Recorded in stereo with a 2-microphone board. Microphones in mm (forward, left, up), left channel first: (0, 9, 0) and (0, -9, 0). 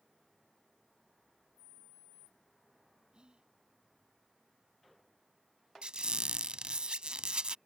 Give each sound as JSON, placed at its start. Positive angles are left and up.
{"t": 3.1, "sound": "whispering", "side_deg": -60}
{"t": 5.8, "sound": "a squeak", "side_deg": -65}